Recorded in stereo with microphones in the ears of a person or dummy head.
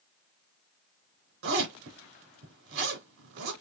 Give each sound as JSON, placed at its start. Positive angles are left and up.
{"t": 1.4, "sound": "a zipper", "side_deg": -70, "distance_m": 3.0}